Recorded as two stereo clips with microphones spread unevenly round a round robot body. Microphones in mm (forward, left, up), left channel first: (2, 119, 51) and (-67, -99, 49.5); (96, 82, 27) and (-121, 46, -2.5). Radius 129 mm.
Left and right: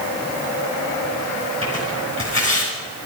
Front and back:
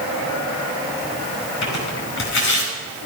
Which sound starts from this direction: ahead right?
Tearing paper, at 1.6 s.